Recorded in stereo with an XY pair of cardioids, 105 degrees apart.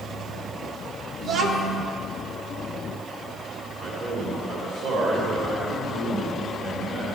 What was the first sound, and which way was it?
A child speaking, 65° right.